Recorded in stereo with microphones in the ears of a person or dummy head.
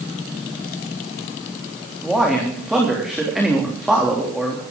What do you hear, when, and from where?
2.0 s a man speaking: centre (ahead or behind), 3 m